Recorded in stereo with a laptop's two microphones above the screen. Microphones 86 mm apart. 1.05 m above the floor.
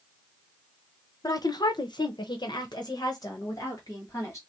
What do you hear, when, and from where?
1.2 s a woman speaking: 45° left (ahead or behind), 0.8 m; by 4.4 s 40° left (ahead or behind), 1.8 m